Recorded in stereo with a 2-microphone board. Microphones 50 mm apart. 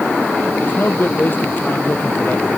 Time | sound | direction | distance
0.6 | a man speaking | 40° left (ahead or behind) | ?